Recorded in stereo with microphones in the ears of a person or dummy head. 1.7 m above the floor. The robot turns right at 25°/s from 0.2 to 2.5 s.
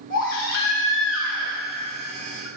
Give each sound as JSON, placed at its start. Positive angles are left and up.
{"t": 0.1, "sound": "a baby crying", "azimuth_deg": 55, "distance_m": 5.5}